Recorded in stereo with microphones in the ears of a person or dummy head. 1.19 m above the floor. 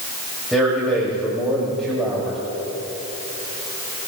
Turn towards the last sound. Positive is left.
turn(degrees=0)  # may be behind; listen again after turning